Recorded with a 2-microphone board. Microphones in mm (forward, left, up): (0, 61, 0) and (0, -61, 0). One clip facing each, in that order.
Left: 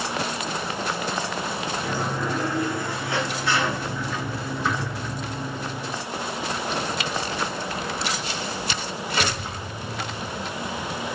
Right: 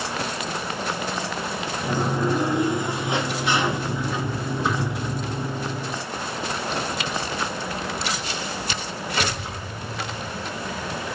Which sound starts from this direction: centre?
A sliding door, at 1.8 s.